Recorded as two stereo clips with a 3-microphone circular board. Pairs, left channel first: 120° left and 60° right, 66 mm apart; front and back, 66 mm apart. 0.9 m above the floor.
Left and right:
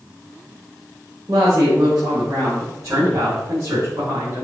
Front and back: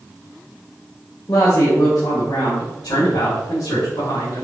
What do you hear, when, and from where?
1.3 s a woman speaking: 30° right, 3 m; by 4.5 s 20° right, 6.5 m